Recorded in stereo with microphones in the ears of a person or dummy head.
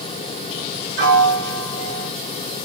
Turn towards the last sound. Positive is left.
turn(degrees=-65)  # may be behind; listen again after turning